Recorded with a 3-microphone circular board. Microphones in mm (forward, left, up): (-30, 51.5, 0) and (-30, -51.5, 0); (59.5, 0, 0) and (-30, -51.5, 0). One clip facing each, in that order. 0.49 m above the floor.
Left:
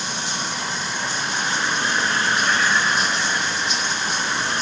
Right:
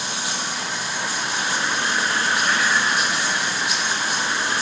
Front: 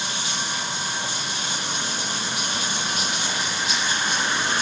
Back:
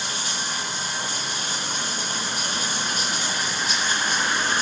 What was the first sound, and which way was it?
Running water, 100° right.